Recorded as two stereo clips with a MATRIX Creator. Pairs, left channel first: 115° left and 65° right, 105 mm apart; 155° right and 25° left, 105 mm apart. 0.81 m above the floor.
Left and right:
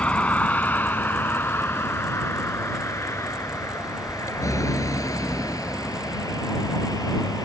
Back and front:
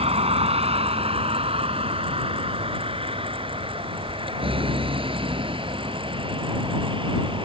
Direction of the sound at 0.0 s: 35° left.